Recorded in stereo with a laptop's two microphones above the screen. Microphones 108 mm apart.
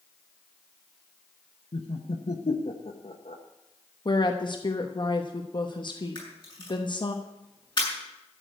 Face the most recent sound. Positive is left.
turn(degrees=45)  # may be behind; listen again after turning